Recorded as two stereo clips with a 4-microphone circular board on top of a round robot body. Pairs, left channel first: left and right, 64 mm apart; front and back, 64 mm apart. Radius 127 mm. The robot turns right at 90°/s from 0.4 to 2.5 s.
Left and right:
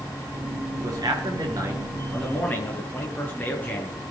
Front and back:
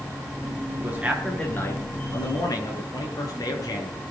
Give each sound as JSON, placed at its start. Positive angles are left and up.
{"t": 0.8, "sound": "a man speaking", "azimuth_deg": -125, "distance_m": 9.0}